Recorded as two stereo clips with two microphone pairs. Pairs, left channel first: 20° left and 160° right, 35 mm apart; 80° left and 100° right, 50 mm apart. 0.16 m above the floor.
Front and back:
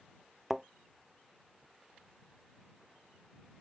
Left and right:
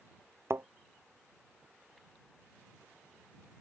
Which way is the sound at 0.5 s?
75° right.